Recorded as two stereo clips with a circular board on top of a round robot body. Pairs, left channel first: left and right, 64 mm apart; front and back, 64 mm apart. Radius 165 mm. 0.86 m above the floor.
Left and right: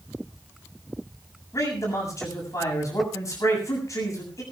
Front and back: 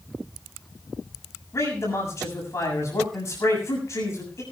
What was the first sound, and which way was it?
A man speaking, 50° left.